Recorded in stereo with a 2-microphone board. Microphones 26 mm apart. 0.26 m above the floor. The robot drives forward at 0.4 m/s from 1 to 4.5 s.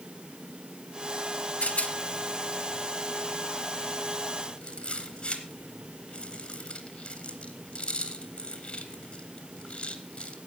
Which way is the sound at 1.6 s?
65° left (ahead or behind).